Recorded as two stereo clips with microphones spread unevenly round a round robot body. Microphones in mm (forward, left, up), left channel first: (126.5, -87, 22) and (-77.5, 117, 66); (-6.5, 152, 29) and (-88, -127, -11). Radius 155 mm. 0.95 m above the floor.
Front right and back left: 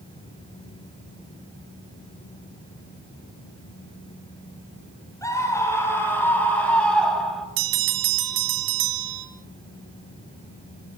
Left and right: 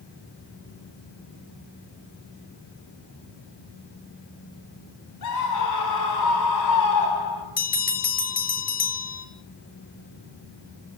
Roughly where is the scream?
Ahead left.